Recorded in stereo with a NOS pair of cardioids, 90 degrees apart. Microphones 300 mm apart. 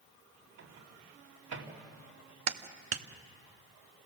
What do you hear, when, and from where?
0.6 s a microwave: 65° right, 2.5 m
2.5 s a clap: 55° right, 1.0 m